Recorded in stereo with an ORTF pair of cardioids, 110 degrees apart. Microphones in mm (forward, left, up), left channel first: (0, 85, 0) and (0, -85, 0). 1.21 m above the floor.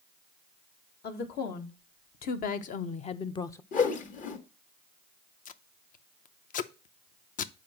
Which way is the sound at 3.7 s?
50° left.